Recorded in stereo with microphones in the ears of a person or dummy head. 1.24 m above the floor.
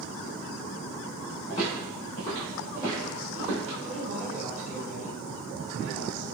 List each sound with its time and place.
1.5 s footsteps: 40° left (ahead or behind), 1.7 m; by 3.7 s 30° right (ahead or behind), 1.6 m
3.8 s a woman speaking: 60° right (ahead or behind), 1.3 m